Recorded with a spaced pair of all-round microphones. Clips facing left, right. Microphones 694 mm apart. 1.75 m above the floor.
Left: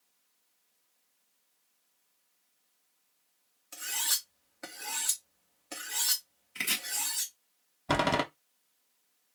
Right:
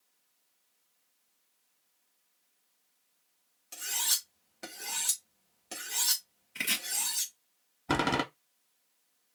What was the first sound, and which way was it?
Cutlery clinking, 55° right (ahead or behind).